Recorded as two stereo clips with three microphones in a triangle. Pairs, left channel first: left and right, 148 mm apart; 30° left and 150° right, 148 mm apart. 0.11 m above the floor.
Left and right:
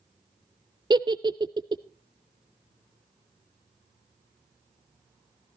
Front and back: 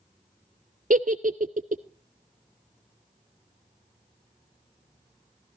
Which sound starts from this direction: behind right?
A giggle, at 0.9 s.